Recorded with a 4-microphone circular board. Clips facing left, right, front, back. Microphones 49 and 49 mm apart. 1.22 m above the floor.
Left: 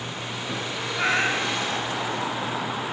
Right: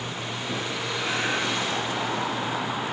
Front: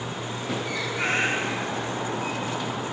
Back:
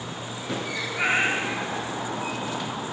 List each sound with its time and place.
0.9 s a cat meowing: 105° left, 3 m